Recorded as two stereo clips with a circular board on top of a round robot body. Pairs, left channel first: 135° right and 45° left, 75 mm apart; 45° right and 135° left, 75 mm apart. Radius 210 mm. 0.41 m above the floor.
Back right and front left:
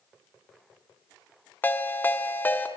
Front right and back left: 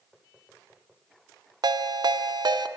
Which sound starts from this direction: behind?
A ringtone, at 1.6 s.